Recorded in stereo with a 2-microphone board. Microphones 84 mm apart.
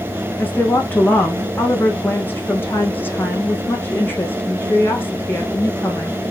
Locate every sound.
0.4 s a woman speaking: 25° left (ahead or behind), 5 m